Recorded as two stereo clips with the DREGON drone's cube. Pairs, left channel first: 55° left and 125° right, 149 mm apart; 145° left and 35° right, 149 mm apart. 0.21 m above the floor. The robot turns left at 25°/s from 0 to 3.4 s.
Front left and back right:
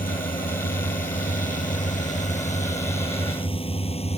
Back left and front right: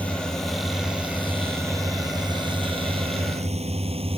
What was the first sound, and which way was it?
A drone, 65° left.